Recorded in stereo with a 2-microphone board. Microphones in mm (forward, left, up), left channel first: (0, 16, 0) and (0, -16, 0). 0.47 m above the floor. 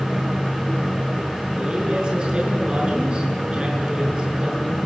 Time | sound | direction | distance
1.6 | a man speaking | 30° right (ahead or behind) | 7.5 m